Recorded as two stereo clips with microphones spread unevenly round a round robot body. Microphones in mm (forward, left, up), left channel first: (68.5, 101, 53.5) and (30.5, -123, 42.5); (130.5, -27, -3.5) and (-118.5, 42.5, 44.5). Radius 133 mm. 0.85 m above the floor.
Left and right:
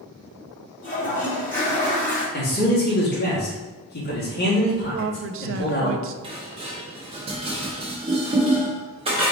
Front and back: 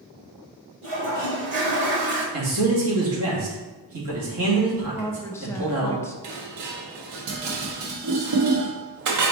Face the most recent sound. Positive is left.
turn(degrees=-170)